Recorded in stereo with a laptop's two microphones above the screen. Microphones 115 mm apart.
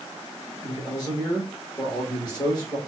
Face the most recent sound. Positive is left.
turn(degrees=35)  # may be behind; listen again after turning